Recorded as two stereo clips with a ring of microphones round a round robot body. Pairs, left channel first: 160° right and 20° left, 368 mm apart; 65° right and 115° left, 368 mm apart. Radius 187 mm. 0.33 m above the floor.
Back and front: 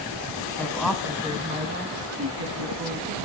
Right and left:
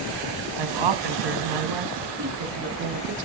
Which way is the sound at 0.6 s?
120° left.